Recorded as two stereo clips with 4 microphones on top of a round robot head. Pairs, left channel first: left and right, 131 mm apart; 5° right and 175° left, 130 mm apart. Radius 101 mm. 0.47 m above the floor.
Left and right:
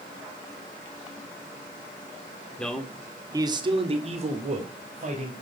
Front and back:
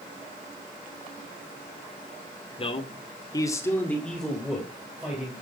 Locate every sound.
2.6 s a man speaking: 10° left, 1.9 m; by 5.3 s 110° right, 3.5 m